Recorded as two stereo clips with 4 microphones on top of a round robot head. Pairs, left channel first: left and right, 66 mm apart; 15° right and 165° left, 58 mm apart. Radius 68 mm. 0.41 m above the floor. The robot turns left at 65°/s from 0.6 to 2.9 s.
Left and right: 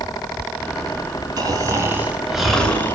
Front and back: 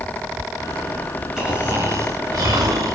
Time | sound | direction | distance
1.4 | snoring | 110° right | 3.5 m